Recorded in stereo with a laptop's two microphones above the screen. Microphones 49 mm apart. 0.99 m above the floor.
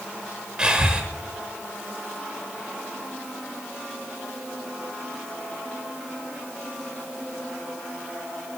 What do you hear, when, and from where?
0.6 s breathing: 20° right (ahead or behind), 1.2 m